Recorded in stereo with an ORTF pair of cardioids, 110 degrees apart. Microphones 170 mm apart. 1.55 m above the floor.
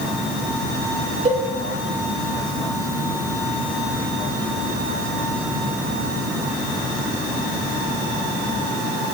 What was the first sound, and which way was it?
A cowbell, 40° right.